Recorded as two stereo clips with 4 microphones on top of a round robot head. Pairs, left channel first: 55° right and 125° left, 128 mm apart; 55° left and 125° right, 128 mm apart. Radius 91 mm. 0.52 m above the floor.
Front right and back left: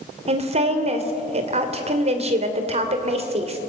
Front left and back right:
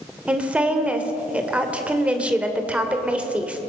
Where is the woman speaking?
155° left, 2.5 m.